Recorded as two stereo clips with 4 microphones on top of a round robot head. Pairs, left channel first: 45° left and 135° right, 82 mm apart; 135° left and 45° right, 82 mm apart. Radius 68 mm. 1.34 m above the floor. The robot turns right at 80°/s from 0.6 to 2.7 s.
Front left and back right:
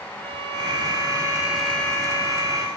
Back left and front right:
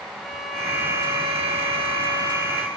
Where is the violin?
130° right, 2.5 m; by 2.7 s 35° left, 2.5 m.